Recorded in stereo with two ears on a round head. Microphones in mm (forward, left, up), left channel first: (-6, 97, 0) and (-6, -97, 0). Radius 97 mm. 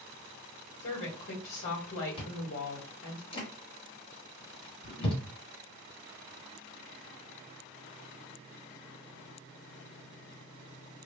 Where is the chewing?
30° left (ahead or behind), 1.7 m.